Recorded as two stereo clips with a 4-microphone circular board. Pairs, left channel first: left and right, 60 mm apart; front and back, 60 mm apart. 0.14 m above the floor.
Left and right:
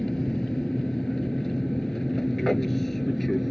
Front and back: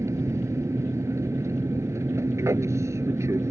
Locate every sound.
0.0 s an aircraft: 170° left; by 3.5 s 175° left